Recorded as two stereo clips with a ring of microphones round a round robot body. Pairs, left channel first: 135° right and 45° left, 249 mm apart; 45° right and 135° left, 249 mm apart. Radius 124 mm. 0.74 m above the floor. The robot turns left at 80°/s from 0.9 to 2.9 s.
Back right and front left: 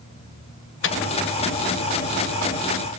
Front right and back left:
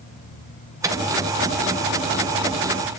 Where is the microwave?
150° right, 0.7 m; by 1.0 s 160° right, 0.7 m.